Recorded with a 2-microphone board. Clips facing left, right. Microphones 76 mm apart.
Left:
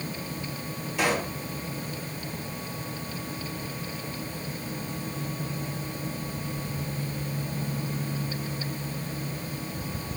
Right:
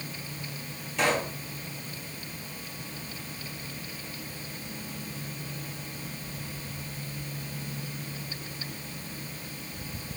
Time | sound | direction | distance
1.0 | a pop | 5° left (ahead or behind) | 3 m